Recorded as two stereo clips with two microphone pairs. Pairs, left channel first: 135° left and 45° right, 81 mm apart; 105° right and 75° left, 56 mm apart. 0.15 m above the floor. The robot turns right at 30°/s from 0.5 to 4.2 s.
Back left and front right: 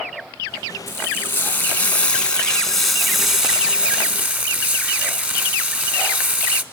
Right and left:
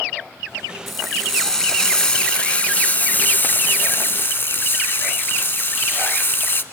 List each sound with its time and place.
0.9 s frying: 160° left, 0.9 m; by 6.6 s 100° right, 0.9 m